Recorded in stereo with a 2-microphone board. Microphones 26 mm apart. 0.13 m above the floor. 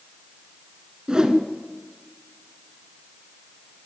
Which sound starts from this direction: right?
A whoosh, at 1.1 s.